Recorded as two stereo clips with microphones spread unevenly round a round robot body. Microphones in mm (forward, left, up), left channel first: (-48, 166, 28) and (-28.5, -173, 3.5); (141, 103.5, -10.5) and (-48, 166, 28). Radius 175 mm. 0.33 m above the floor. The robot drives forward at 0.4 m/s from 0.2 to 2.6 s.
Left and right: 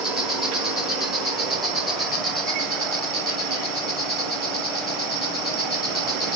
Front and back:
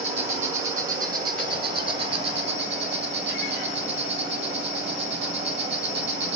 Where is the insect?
165° right, 1.6 m; by 6.4 s 175° right, 2 m.